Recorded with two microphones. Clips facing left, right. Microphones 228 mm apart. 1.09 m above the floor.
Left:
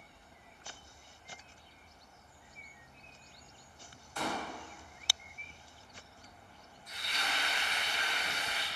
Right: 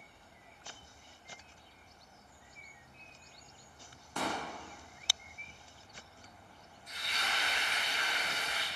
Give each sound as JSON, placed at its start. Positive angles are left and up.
{"t": 4.2, "sound": "a pop", "side_deg": -75, "distance_m": 0.8}
{"t": 6.9, "sound": "frying", "side_deg": -50, "distance_m": 1.6}